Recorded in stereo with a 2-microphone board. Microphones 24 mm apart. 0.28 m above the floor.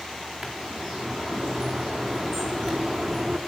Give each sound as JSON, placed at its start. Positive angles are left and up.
{"t": 0.4, "sound": "a bird", "side_deg": -5, "distance_m": 4.0}